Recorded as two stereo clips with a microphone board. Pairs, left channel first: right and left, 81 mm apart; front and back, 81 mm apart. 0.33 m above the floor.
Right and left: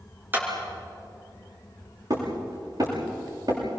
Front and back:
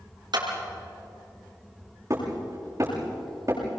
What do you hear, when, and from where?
0.3 s a clap: 155° left, 5 m
2.1 s hammering: 125° left, 8.5 m